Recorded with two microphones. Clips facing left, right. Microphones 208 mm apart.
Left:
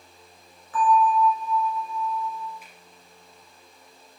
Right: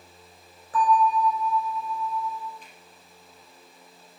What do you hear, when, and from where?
0.7 s a bell: 35° right (ahead or behind), 5.5 m
2.6 s a finger snap: 10° left (ahead or behind), 4 m